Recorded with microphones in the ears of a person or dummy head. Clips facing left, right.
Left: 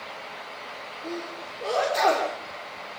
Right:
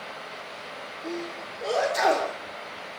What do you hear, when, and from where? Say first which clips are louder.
1.0 s a sneeze: right 1 dB; 5° right (ahead or behind), 5 m